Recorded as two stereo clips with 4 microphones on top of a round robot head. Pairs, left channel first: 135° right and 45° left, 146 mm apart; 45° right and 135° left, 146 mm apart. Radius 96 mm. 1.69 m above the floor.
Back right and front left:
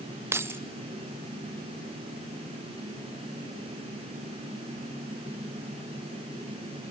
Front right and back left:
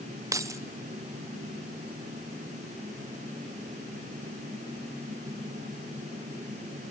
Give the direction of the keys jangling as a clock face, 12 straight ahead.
9 o'clock.